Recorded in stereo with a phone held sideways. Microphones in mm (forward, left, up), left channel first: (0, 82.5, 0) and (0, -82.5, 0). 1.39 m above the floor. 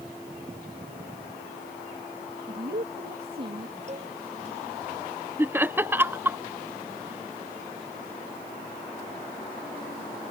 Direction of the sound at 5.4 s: 15° right (ahead or behind).